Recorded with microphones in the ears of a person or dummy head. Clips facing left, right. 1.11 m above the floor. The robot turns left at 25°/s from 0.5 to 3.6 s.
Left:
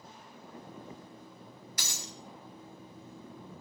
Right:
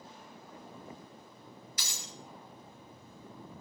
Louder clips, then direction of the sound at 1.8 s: Left 5 dB; 45° left (ahead or behind).